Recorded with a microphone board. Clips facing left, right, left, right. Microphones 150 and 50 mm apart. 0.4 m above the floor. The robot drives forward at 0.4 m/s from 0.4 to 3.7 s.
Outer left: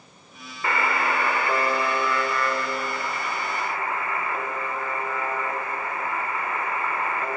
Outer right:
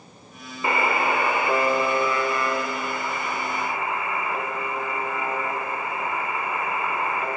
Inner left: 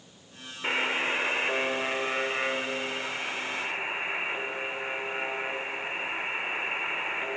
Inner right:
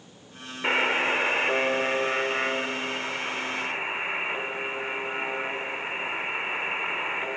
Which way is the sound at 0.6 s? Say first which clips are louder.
Outer right 2 dB, inner right 4 dB; 20° right (ahead or behind).